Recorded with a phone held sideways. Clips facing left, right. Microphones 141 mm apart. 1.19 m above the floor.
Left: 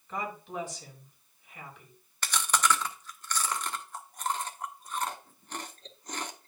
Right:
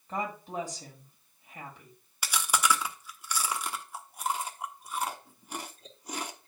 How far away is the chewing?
About 0.9 m.